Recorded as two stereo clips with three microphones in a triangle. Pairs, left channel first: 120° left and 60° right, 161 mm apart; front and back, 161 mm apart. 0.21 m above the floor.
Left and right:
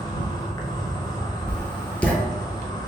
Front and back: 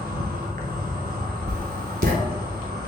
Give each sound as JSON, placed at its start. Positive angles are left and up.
{"t": 0.0, "sound": "an insect", "azimuth_deg": 180, "distance_m": 0.7}
{"t": 1.5, "sound": "writing", "azimuth_deg": -160, "distance_m": 0.6}